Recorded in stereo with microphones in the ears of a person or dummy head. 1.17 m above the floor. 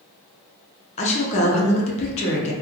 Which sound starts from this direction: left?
A woman speaking, at 1.0 s.